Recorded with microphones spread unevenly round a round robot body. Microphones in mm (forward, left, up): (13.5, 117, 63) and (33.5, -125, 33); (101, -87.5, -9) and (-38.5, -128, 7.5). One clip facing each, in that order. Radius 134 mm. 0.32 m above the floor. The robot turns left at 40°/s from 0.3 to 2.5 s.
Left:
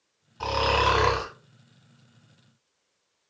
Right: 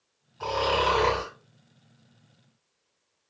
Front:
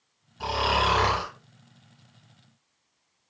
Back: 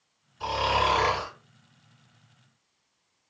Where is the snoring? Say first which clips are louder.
Even, even; 55° left, 2 m; by 1.3 s 20° left, 2 m.